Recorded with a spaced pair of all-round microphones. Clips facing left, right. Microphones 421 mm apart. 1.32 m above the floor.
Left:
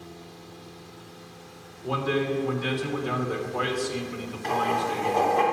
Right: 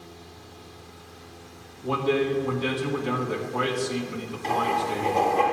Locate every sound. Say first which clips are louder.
1.8 s a man speaking: right 3 dB; 80° right, 2.0 m
4.4 s writing: even; 50° right (ahead or behind), 2 m